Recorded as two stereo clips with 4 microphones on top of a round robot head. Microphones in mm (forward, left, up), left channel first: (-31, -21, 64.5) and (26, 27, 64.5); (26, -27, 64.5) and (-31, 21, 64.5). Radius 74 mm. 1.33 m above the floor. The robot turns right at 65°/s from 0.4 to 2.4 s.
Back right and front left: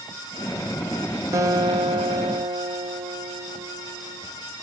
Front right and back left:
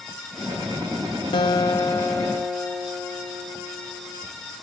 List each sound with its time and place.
1.3 s a guitar: 15° right, 1.1 m; by 4.2 s 55° left, 1.1 m